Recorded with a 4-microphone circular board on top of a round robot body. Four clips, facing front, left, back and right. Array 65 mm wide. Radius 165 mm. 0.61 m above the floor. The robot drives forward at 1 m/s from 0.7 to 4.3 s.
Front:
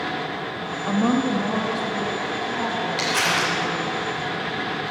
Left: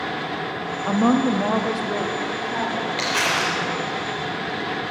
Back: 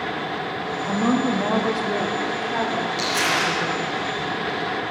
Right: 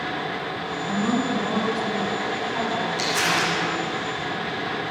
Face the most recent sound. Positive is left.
turn(degrees=100)